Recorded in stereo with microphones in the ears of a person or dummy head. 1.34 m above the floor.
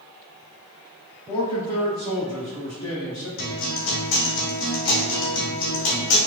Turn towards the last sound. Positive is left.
turn(degrees=70)  # may be behind; listen again after turning